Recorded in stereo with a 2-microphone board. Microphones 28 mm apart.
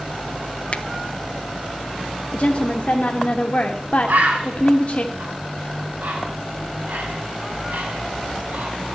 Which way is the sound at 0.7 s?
50° left (ahead or behind).